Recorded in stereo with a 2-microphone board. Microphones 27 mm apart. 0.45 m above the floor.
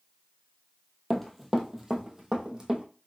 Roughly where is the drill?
No drill in this recording.